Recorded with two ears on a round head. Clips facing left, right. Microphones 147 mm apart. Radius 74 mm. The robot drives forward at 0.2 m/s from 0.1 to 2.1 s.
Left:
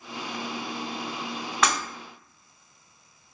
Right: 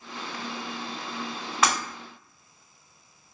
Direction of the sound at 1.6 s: Centre (ahead or behind).